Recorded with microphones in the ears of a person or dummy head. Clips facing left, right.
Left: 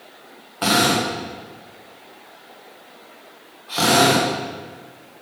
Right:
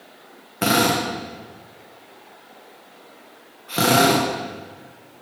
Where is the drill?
30° right (ahead or behind), 1.0 m.